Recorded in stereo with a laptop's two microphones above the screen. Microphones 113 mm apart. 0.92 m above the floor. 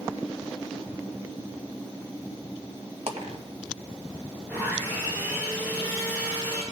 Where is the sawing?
15° right (ahead or behind), 4 m.